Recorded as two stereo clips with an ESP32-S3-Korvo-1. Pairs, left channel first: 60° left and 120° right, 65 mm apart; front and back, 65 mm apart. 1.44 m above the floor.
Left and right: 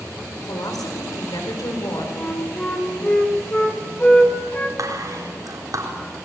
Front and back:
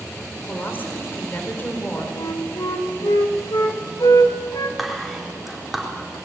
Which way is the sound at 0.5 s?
60° left.